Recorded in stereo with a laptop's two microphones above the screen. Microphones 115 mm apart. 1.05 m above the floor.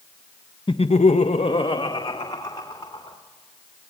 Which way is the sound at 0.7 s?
45° left (ahead or behind).